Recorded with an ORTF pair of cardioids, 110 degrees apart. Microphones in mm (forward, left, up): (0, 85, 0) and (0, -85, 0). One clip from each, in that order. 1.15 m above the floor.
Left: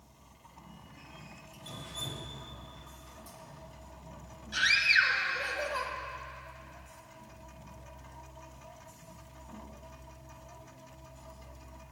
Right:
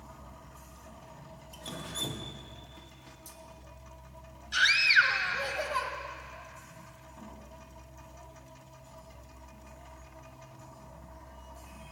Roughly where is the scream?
Ahead right.